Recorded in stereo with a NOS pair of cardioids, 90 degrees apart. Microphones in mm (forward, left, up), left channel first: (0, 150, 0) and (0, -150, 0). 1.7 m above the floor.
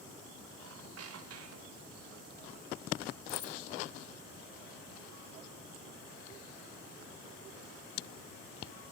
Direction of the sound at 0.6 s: 55° right.